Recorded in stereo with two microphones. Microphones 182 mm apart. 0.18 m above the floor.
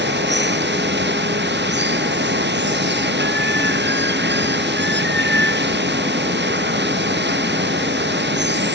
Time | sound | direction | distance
0.0 | running water | 75° right (ahead or behind) | ?